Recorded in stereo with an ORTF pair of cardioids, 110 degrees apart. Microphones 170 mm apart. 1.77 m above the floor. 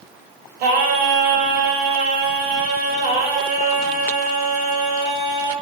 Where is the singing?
70° right, 3 m.